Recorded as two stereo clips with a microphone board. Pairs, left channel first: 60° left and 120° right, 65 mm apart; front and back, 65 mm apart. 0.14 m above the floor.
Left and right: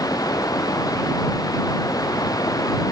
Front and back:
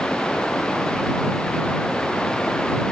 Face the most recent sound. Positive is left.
turn(degrees=80)